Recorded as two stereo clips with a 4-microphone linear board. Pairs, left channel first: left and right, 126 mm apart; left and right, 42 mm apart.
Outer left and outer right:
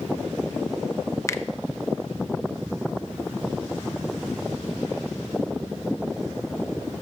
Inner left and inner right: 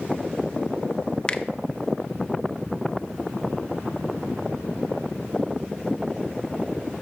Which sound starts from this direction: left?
A finger snap, at 1.3 s.